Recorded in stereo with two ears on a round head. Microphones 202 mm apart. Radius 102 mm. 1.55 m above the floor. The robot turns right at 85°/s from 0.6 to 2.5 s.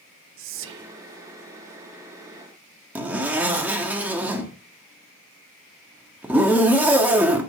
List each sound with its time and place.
0.4 s whispering: 60° right (ahead or behind), 0.7 m; by 0.9 s 35° right (ahead or behind), 0.7 m
3.0 s a zipper: 10° right (ahead or behind), 1.8 m